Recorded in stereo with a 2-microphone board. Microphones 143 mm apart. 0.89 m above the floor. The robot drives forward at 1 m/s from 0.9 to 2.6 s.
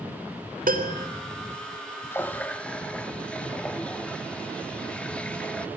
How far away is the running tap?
About 0.6 m.